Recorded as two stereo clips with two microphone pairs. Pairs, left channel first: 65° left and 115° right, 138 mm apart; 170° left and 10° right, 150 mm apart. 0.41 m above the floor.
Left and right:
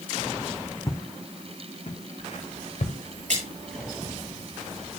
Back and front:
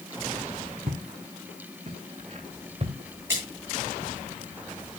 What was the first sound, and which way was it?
Footsteps, straight ahead.